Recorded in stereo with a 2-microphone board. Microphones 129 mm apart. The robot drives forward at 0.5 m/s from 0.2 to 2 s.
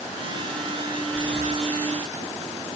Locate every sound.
1.1 s breathing: 5° left (ahead or behind), 0.6 m